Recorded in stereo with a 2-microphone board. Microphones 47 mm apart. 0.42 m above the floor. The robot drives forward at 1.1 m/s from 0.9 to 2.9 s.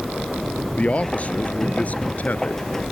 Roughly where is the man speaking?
Left.